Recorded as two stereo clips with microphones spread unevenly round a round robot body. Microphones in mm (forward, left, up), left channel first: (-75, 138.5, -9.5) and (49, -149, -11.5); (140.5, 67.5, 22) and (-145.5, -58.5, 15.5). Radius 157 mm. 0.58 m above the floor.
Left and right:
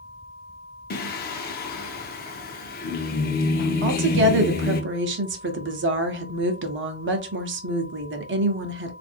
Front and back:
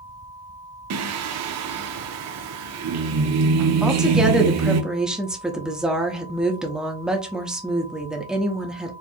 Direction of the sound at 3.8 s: 70° right.